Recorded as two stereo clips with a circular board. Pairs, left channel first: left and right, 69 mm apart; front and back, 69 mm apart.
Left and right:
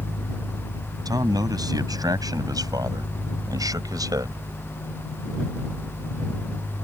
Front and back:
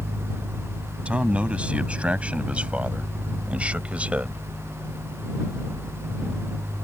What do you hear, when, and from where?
1.1 s a man speaking: 110° right